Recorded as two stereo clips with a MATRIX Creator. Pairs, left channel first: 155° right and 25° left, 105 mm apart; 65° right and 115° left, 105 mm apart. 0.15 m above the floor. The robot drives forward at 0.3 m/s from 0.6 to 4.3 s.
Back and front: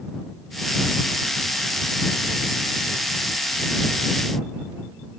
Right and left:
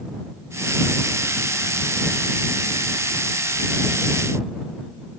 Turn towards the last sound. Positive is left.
No sound to turn to.